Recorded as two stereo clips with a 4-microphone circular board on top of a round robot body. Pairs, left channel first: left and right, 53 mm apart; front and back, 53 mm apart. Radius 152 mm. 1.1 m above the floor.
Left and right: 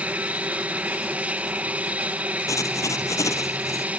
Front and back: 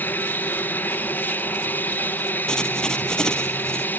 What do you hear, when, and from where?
0.0 s an aircraft: 40° right
2.5 s writing: 80° left